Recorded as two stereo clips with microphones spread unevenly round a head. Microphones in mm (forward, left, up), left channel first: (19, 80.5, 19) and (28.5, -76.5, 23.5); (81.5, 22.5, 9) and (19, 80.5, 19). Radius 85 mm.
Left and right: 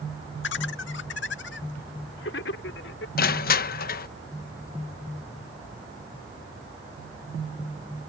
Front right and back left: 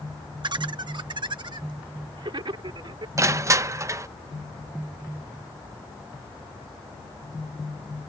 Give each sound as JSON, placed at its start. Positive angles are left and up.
{"t": 0.4, "sound": "laughter", "azimuth_deg": 105}
{"t": 3.2, "sound": "crushing", "azimuth_deg": 80}